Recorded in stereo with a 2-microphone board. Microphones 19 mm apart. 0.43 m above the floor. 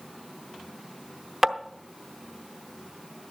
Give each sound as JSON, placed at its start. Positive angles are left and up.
{"t": 1.4, "sound": "tapping", "side_deg": -10, "distance_m": 0.8}